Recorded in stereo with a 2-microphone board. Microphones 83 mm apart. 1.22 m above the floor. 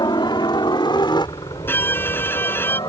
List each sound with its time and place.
0.0 s a helicopter: 60° left (ahead or behind)
1.7 s a violin: 25° left (ahead or behind)